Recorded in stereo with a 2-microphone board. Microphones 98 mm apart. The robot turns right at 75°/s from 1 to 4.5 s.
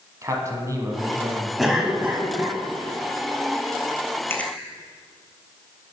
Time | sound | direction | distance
0.2 | a man speaking | 110° right | 1.5 m
1.6 | a cough | centre (ahead or behind) | 1.2 m
4.3 | chewing | 25° left (ahead or behind) | 0.9 m